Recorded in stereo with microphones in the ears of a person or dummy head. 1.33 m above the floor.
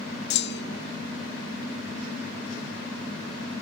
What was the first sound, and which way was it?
A clunk, 50° left (ahead or behind).